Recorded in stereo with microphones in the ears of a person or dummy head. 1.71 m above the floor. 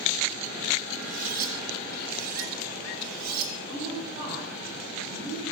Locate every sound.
1.0 s cutlery clinking: 50° right (ahead or behind), 3.5 m
3.7 s a woman speaking: 35° right (ahead or behind), 7 m